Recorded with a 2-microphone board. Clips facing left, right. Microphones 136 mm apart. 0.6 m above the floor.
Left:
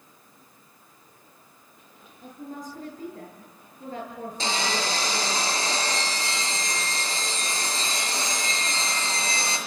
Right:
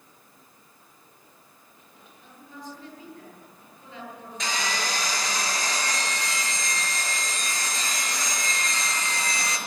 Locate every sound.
2.2 s a woman speaking: 45° left (ahead or behind), 10 m
4.4 s sawing: 30° left (ahead or behind), 6.5 m